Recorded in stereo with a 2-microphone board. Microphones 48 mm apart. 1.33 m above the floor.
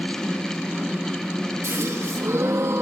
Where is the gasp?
80° right, 1.7 m.